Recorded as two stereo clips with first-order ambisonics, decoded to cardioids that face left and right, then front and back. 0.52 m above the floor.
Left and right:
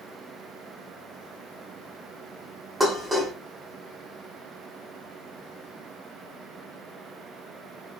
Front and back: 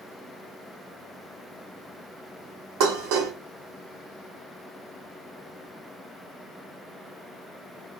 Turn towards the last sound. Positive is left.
turn(degrees=-170)